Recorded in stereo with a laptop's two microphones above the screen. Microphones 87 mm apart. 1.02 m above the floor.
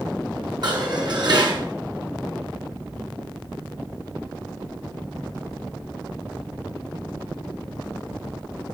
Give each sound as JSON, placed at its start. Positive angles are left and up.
{"t": 0.6, "sound": "dishes clattering", "side_deg": -55, "distance_m": 8.5}